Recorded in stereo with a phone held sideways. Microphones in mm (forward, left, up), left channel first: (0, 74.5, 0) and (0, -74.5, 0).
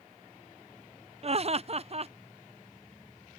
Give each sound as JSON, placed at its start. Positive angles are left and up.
{"t": 1.2, "sound": "laughter", "side_deg": -45}